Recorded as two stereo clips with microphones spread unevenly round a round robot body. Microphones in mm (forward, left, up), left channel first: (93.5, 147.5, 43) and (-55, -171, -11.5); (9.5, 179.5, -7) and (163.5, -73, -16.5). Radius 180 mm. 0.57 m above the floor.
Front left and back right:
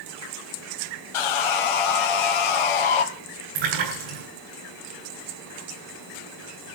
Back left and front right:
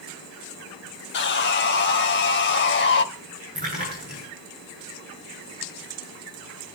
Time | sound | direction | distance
1.1 | sawing | 65° left | 2 m
3.5 | a splash | 130° right | 9 m